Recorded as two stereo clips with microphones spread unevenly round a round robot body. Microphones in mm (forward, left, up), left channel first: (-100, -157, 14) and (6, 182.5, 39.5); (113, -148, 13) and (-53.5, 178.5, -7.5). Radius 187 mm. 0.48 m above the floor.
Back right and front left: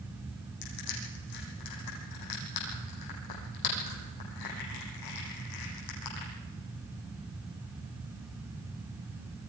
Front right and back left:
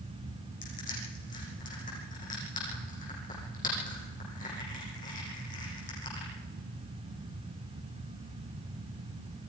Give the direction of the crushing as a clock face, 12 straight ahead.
4 o'clock.